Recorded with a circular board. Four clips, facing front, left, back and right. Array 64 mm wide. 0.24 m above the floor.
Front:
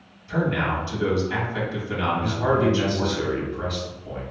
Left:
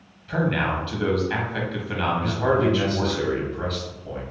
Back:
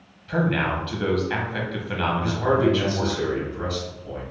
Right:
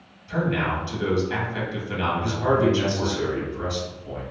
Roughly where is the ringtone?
No ringtone in this recording.